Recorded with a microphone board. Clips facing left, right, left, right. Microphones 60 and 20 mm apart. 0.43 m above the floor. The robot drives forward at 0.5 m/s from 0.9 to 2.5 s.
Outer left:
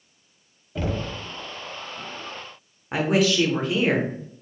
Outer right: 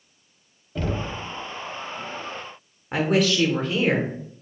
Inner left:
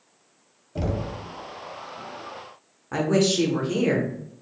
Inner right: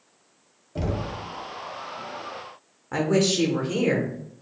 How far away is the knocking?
About 0.8 m.